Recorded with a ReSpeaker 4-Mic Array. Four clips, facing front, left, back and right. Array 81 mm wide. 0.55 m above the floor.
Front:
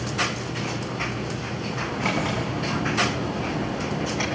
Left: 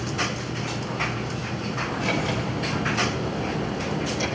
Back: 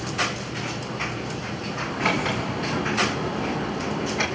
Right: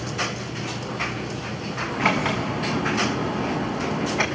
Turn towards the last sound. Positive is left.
turn(degrees=-95)